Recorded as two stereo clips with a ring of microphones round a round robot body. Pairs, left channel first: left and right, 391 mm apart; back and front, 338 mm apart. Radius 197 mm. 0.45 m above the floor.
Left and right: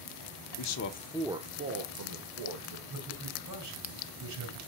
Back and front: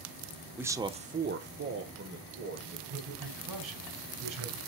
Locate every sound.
0.6 s a man speaking: 85° left, 1.1 m; by 2.8 s 60° right, 2 m
2.9 s a man speaking: 40° right, 6 m